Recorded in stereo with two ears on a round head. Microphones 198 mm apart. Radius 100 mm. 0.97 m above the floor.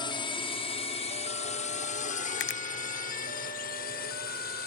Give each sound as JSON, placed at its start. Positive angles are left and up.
{"t": 0.0, "sound": "a drone", "side_deg": 20}
{"t": 2.4, "sound": "a finger snap", "side_deg": 55}